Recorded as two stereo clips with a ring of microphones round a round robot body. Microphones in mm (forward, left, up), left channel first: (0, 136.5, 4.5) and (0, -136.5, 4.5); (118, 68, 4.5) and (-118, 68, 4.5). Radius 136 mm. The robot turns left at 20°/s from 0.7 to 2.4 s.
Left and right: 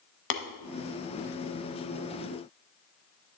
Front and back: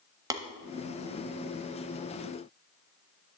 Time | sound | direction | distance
0.3 | tapping | 105° left | 0.7 m